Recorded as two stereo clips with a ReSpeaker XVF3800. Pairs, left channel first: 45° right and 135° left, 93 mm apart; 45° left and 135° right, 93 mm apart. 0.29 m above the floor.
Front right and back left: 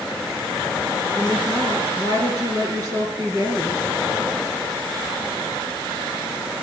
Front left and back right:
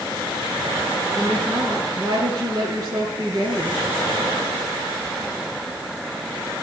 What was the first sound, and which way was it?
A woman speaking, 175° right.